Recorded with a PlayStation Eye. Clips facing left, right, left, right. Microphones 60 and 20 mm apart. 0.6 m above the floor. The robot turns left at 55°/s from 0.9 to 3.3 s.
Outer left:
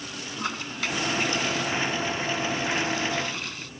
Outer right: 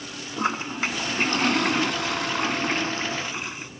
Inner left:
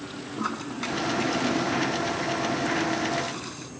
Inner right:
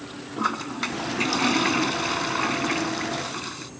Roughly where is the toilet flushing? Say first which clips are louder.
Outer right 6 dB, inner right 5 dB; ahead right.